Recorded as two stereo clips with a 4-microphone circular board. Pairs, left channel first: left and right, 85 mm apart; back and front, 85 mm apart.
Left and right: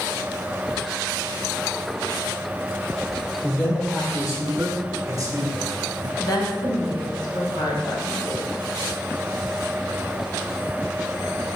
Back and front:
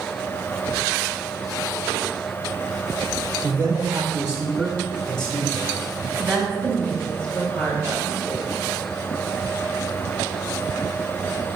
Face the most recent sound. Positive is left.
turn(degrees=100)